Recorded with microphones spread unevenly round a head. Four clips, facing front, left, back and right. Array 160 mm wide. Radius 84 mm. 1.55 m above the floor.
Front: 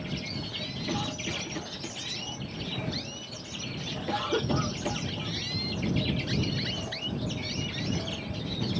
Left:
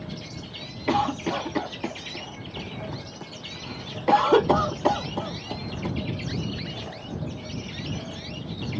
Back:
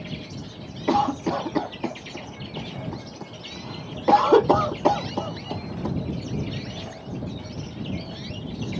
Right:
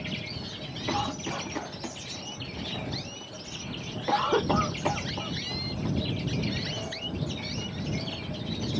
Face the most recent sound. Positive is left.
turn(degrees=160)